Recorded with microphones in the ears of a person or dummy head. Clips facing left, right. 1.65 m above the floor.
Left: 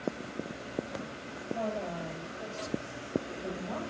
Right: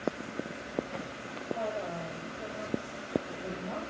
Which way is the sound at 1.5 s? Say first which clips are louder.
Left 1 dB; 5° left (ahead or behind).